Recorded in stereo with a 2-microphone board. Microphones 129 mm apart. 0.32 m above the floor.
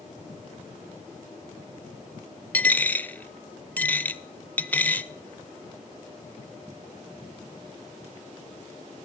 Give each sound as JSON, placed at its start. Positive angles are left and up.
{"t": 2.5, "sound": "a dropped coin", "side_deg": 10, "distance_m": 0.5}